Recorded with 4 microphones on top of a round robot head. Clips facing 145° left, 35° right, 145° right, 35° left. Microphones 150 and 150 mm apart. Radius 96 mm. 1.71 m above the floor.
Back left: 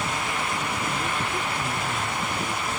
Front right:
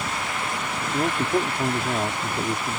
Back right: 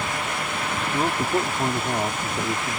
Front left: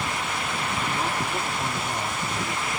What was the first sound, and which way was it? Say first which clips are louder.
A man speaking: front right 6 dB, back right 5 dB; 80° right.